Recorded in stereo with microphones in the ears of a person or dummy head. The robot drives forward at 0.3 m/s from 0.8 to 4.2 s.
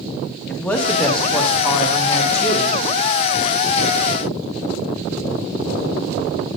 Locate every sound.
0.5 s a man speaking: 15° left (ahead or behind), 1.1 m; by 2.7 s 10° left (ahead or behind), 1.6 m